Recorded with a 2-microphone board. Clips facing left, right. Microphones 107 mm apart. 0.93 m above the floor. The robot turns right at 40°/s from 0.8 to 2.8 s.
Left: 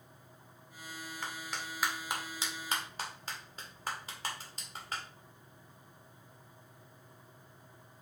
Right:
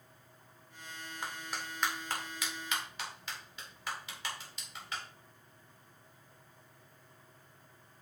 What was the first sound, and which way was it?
A clap, 20° right (ahead or behind).